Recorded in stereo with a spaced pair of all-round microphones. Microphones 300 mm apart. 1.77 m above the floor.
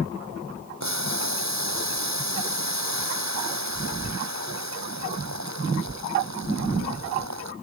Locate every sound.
0.8 s boiling: 65° right (ahead or behind)